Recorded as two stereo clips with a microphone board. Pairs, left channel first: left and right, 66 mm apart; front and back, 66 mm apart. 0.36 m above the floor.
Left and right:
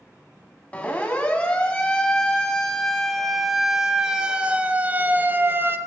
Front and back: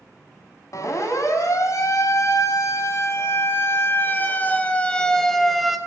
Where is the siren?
20° left, 4.5 m; by 5.8 s 95° right, 2 m.